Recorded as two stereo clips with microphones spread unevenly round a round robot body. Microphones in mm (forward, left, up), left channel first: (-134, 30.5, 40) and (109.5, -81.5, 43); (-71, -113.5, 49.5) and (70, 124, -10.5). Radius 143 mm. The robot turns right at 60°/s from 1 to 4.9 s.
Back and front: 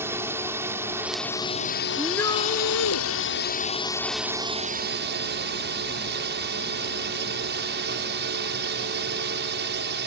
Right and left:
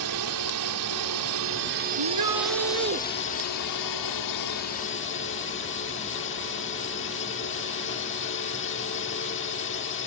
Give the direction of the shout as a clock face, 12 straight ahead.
10 o'clock.